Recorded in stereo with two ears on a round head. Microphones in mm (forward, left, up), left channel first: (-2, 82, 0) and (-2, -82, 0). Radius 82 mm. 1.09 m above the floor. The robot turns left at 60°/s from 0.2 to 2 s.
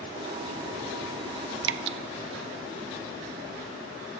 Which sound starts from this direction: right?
Dripping, at 1.6 s.